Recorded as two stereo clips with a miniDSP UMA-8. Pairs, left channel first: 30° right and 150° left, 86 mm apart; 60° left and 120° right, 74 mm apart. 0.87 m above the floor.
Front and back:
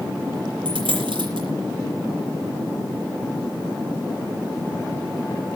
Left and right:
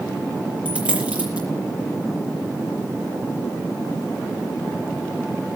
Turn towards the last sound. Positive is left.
turn(degrees=170)